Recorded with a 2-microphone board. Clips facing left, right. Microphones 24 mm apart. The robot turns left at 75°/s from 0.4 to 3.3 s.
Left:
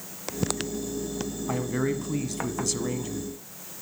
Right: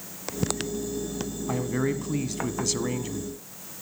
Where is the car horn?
No car horn in this recording.